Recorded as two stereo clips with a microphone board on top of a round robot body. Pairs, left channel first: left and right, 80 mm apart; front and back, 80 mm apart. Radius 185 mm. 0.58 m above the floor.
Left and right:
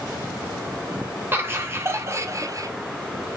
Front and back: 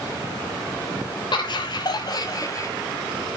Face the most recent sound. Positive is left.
turn(degrees=-50)